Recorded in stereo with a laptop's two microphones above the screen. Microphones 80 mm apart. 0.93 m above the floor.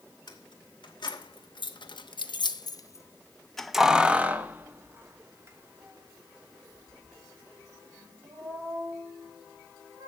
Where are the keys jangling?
70° left (ahead or behind), 1.6 m; by 10.1 s 45° right (ahead or behind), 4 m.